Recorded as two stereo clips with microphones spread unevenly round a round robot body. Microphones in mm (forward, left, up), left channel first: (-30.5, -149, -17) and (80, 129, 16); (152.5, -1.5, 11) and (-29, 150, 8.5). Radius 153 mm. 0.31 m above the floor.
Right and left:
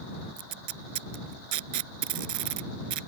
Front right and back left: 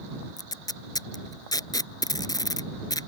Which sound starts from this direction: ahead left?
Tape being pulled, at 0.4 s.